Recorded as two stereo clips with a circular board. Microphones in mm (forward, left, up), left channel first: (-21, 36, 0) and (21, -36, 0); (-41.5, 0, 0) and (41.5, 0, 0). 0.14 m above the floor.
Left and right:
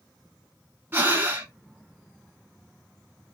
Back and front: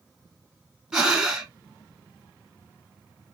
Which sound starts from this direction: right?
Breathing, at 0.9 s.